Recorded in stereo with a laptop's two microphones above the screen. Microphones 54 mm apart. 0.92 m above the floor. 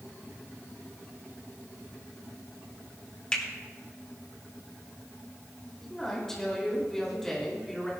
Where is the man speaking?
5° left (ahead or behind), 2.5 m.